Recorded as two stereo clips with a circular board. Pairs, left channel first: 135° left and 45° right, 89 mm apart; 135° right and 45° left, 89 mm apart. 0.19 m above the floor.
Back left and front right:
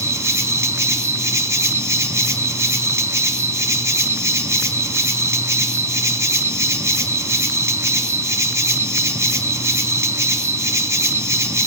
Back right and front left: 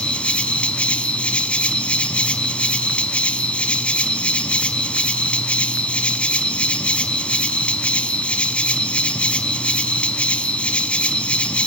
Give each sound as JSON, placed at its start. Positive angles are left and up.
{"t": 0.0, "sound": "an insect", "azimuth_deg": -70, "distance_m": 1.0}